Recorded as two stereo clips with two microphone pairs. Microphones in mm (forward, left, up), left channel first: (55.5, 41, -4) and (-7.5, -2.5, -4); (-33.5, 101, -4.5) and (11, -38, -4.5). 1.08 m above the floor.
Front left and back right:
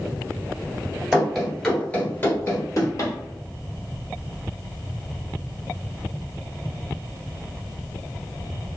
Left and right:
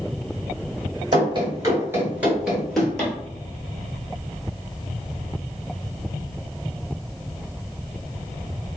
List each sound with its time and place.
1.1 s running footsteps: 65° right, 1.2 m; by 3.1 s 30° left, 1.5 m